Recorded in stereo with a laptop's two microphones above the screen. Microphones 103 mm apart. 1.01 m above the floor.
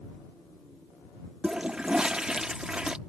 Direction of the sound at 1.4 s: 10° right (ahead or behind).